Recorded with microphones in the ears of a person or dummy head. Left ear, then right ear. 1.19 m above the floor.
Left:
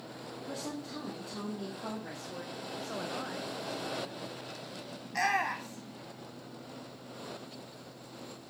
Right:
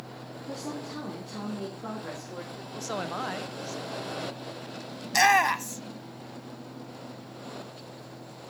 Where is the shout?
75° right (ahead or behind), 0.9 m.